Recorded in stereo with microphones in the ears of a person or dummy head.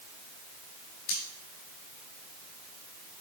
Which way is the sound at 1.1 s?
65° left (ahead or behind).